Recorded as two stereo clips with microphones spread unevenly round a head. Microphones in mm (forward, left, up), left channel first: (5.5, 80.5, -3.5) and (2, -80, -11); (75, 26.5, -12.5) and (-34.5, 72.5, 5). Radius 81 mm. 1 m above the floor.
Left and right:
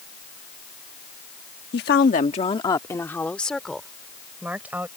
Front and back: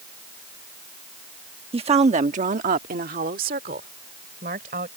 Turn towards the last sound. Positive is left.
turn(degrees=-170)